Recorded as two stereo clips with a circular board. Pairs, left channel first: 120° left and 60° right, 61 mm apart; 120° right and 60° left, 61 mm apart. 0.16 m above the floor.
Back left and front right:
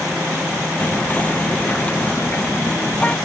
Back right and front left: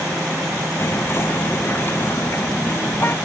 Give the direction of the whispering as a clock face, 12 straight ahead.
6 o'clock.